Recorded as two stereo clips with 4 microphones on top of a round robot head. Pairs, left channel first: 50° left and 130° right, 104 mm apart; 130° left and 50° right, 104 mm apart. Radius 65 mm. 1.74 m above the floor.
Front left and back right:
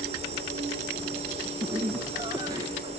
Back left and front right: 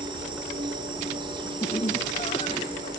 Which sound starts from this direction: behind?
Laughter, at 1.6 s.